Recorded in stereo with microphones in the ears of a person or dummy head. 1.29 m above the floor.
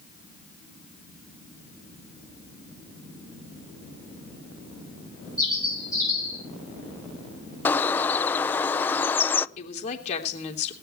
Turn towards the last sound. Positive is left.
turn(degrees=40)  # may be behind; listen again after turning